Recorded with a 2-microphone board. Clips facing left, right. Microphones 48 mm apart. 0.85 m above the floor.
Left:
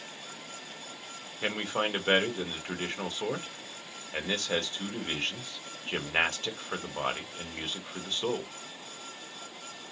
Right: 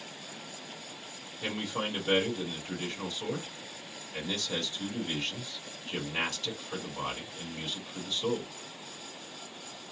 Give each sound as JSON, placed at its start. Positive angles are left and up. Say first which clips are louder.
{"t": 1.4, "sound": "a man speaking", "louder": "left 3 dB", "side_deg": 45, "distance_m": 1.3}